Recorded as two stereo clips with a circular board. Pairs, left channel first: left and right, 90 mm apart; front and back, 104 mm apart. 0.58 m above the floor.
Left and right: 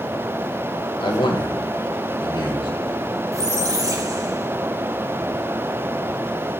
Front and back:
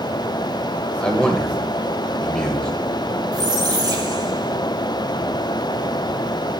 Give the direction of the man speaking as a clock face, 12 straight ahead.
9 o'clock.